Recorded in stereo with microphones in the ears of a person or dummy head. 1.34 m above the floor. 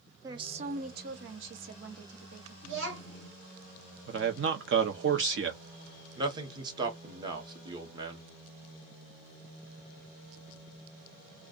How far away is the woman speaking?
About 0.6 m.